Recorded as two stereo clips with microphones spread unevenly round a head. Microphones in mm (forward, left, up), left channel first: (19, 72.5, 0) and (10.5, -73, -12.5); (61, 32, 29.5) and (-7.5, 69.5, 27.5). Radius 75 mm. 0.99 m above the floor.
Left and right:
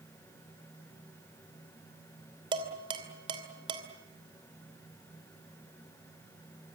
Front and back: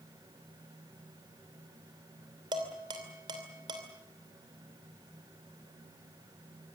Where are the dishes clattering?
155° right, 2.5 m.